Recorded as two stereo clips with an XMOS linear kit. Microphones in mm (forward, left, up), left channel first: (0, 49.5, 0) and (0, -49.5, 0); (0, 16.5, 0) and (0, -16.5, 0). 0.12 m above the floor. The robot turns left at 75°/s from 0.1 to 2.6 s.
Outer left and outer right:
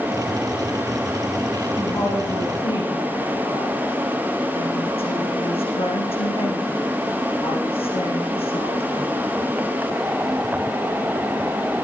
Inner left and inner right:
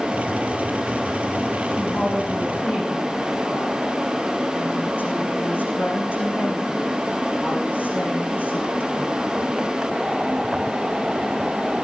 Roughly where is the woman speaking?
Behind.